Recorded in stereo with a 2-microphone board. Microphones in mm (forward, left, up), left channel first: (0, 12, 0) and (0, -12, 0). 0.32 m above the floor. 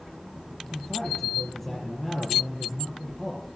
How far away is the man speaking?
About 7.5 m.